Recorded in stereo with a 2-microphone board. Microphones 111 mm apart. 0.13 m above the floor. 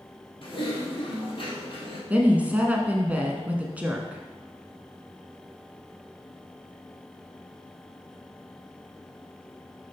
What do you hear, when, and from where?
0.4 s typing on a keyboard: 50° left (ahead or behind), 2.5 m
2.1 s a woman speaking: 15° right (ahead or behind), 1.0 m